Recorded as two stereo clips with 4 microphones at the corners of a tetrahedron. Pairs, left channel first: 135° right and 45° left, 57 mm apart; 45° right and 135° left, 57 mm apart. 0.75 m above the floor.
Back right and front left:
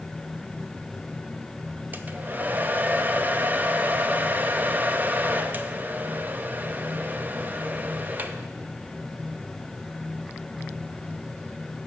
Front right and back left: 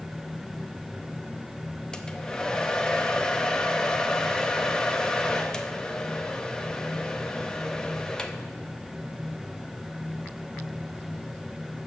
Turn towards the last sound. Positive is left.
turn(degrees=25)